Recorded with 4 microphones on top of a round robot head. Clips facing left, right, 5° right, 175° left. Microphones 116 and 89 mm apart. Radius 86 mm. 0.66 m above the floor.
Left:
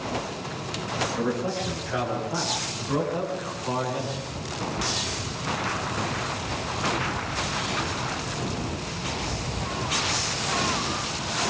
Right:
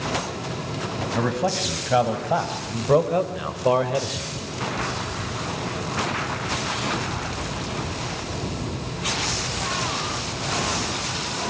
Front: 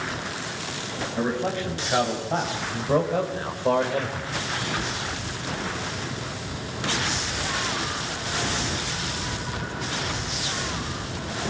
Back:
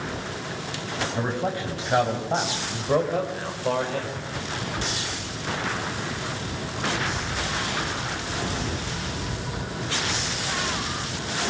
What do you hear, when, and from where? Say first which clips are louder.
1.1 s a man speaking: right 5 dB, front 3 dB; 110° right, 5 m; by 4.3 s 70° right, 2.5 m